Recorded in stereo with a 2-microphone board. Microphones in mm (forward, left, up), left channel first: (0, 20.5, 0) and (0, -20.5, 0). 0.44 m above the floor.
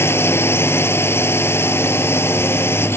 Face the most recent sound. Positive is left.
turn(degrees=75)  # may be behind; listen again after turning